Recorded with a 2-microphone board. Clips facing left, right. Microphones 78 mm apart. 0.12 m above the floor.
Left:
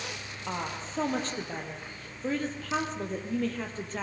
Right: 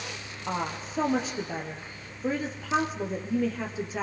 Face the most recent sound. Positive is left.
turn(degrees=-10)  # may be behind; listen again after turning